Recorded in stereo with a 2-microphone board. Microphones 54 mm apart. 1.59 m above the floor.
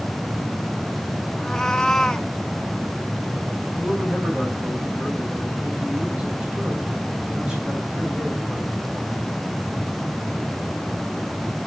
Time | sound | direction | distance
1.4 | a cat meowing | 10° left (ahead or behind) | 0.9 m
3.7 | a man speaking | 20° right (ahead or behind) | 4.5 m